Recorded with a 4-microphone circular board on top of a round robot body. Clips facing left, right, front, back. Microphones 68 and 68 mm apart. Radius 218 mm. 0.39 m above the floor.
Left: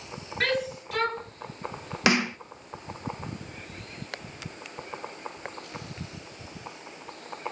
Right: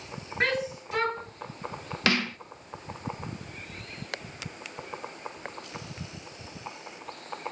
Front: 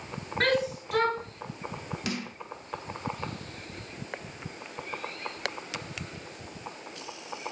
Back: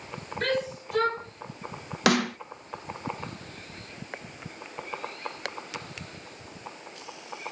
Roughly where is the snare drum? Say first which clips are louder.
Left 3 dB, back 14 dB; behind.